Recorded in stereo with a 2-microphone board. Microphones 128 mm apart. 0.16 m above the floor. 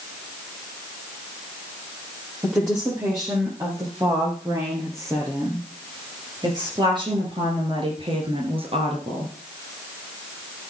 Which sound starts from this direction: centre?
A woman speaking, at 2.4 s.